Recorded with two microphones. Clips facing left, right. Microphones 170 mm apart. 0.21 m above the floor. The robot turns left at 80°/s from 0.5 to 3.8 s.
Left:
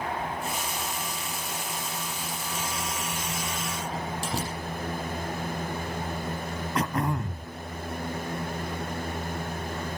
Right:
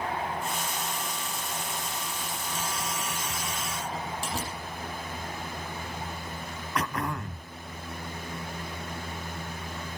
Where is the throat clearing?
30° left (ahead or behind), 1.0 m.